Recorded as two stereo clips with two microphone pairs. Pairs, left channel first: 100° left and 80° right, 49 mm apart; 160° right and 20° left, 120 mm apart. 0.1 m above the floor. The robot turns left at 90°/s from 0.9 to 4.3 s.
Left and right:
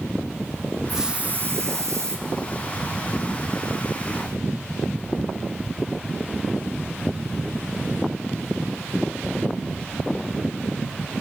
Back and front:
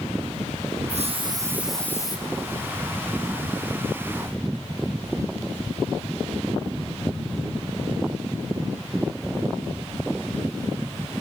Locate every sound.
0.9 s a hiss: 5° left, 3 m; by 2.2 s 110° right, 3 m